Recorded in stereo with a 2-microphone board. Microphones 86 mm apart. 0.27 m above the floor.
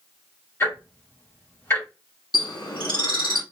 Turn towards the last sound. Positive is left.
turn(degrees=55)  # may be behind; listen again after turning